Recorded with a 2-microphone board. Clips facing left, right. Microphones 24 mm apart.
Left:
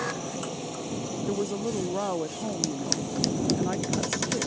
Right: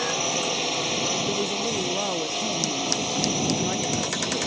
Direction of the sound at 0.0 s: 70° right (ahead or behind).